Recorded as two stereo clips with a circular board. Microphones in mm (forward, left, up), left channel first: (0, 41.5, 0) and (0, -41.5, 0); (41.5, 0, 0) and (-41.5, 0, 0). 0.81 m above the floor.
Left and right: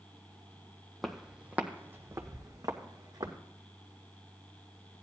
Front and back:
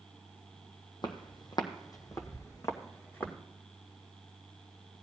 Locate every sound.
1.0 s footsteps: straight ahead, 1.4 m; by 3.4 s 65° right, 2 m